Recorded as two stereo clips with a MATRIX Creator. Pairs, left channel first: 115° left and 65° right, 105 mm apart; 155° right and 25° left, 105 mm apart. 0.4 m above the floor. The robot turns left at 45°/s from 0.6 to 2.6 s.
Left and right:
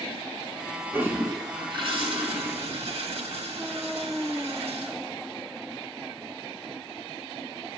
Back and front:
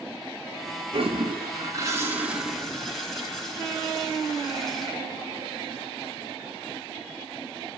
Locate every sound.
0.9 s a toilet flushing: 5° left, 1.9 m; by 4.9 s 70° right, 1.9 m